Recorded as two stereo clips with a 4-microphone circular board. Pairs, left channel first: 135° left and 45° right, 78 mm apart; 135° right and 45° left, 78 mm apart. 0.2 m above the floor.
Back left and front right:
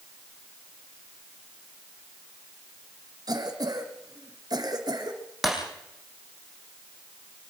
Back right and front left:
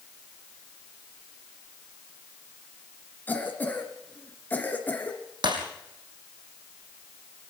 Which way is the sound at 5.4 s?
45° left.